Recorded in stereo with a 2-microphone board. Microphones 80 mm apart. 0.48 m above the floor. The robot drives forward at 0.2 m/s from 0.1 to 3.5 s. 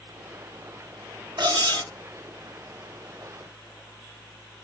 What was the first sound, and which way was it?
Cutlery clinking, 65° right (ahead or behind).